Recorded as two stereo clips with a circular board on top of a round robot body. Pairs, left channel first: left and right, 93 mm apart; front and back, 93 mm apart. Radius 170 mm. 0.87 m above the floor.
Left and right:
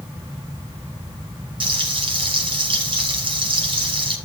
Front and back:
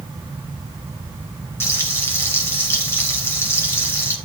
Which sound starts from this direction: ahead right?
Frying, at 1.6 s.